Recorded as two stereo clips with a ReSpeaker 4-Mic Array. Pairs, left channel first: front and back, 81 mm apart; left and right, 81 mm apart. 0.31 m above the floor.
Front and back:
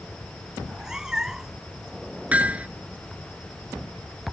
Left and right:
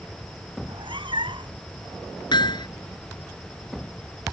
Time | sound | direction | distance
0.6 | a cat meowing | 95° right | ?
2.3 | hammering | 110° left | ?